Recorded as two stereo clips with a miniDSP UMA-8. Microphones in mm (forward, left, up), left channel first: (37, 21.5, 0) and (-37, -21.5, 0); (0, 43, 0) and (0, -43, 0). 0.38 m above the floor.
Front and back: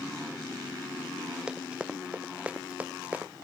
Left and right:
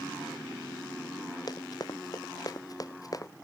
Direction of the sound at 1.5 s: 130° left.